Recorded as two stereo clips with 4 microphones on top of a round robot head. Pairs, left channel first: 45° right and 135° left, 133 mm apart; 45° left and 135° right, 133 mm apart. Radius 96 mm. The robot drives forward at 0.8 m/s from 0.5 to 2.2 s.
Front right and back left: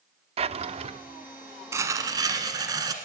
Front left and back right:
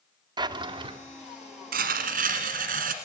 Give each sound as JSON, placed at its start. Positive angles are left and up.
{"t": 0.4, "sound": "a drawer", "azimuth_deg": 170, "distance_m": 0.6}
{"t": 1.7, "sound": "tearing paper", "azimuth_deg": -155, "distance_m": 1.1}